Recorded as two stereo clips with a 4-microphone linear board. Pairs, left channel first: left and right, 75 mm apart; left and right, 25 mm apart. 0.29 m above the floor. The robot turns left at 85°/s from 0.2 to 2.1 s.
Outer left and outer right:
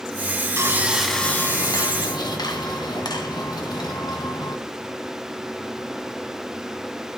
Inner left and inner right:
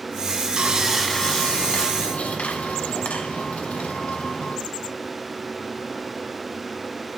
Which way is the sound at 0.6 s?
140° right.